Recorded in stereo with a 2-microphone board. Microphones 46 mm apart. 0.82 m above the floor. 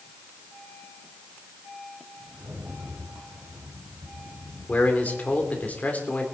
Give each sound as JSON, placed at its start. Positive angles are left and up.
{"t": 2.3, "sound": "a rattle", "side_deg": -75, "distance_m": 3.5}
{"t": 4.7, "sound": "a man speaking", "side_deg": 30, "distance_m": 3.0}